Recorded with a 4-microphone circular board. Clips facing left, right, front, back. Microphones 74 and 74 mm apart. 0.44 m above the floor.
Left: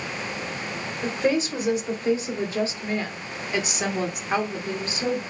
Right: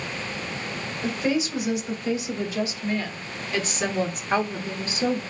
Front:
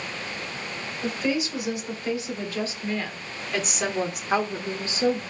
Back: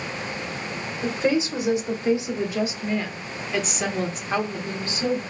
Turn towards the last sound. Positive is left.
turn(degrees=-25)